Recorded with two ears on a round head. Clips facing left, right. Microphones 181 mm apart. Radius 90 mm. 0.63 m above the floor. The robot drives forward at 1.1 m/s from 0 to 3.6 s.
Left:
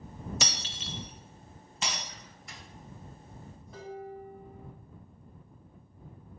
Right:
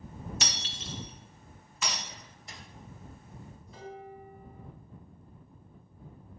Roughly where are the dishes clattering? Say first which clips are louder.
Left 3 dB; left.